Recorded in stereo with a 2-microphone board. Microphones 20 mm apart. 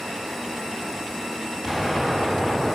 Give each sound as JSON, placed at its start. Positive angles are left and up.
{"t": 1.6, "sound": "an explosion", "side_deg": 15, "distance_m": 3.5}